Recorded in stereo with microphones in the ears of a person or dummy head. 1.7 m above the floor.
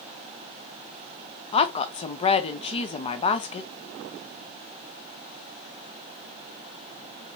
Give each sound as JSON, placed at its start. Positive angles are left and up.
{"t": 1.5, "sound": "a woman speaking", "side_deg": 30, "distance_m": 0.7}